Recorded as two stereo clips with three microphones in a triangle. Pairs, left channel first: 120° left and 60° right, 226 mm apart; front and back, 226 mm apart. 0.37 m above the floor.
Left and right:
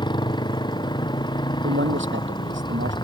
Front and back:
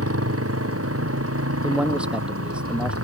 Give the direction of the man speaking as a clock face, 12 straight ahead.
3 o'clock.